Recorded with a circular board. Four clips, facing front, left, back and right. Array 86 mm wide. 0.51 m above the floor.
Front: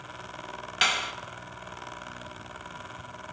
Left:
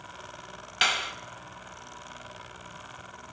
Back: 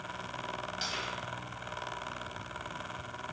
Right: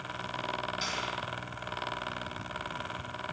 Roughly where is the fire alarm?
I don't hear a fire alarm.